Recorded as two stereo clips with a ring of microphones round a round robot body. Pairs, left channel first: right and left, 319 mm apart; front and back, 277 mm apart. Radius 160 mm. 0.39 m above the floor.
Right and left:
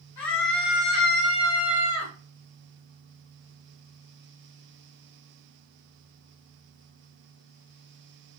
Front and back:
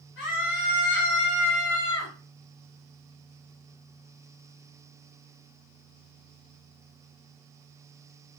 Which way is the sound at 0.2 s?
55° right.